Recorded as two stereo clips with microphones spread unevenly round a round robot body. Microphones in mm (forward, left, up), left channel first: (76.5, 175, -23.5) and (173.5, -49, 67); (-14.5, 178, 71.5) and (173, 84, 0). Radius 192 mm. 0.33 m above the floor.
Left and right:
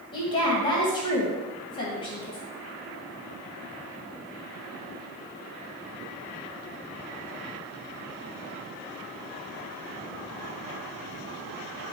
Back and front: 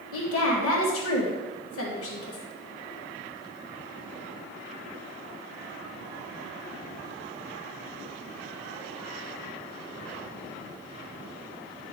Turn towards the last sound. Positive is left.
turn(degrees=160)